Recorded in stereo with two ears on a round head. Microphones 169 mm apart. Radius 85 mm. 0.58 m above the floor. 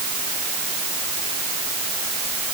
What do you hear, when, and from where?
Only background noise.